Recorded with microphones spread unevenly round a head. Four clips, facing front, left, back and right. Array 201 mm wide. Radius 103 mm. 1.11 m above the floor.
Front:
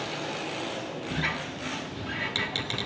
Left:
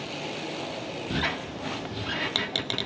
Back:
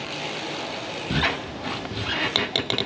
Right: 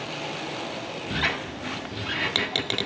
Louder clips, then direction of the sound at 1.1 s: Right 2 dB, back 8 dB; 165° right.